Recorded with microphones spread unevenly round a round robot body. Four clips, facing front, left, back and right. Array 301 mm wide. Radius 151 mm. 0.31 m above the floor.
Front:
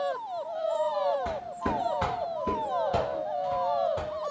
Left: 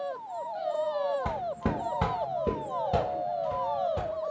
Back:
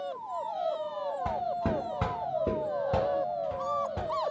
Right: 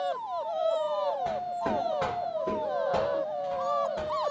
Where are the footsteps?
105° left, 1.0 m; by 4.1 s 150° left, 2.5 m.